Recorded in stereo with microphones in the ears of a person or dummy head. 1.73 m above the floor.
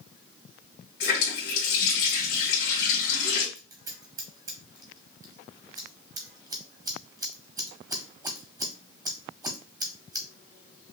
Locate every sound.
1.0 s a running tap: 65° left (ahead or behind), 1.9 m
3.5 s scissors: 20° right (ahead or behind), 0.6 m